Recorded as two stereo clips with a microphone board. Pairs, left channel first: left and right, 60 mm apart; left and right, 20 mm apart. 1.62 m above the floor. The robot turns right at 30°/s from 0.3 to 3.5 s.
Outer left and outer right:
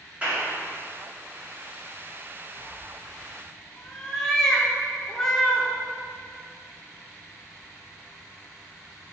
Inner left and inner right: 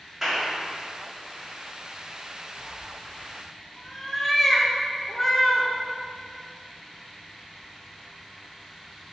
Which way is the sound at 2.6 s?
Centre (ahead or behind).